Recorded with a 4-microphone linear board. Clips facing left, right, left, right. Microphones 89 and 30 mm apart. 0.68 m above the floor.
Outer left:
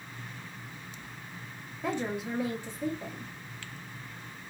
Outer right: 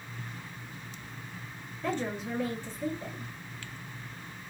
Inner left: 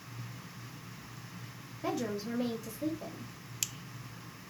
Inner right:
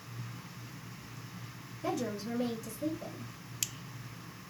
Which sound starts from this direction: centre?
A woman speaking, at 1.8 s.